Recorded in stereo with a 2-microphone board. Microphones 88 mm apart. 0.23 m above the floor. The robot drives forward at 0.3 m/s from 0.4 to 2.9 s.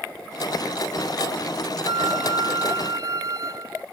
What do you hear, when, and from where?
1.9 s a flute: 70° right (ahead or behind); by 3.9 s 45° right (ahead or behind)